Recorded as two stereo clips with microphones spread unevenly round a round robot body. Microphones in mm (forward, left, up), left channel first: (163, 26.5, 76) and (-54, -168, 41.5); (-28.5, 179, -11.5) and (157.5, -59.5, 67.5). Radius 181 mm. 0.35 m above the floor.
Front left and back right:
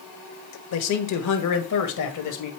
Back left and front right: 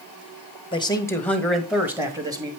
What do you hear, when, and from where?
0.7 s a man speaking: 70° left, 1.4 m; by 2.5 s 30° left, 2 m